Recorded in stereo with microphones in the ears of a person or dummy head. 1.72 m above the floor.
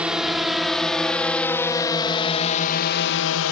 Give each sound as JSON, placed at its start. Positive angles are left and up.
{"t": 0.0, "sound": "a drone", "side_deg": -10}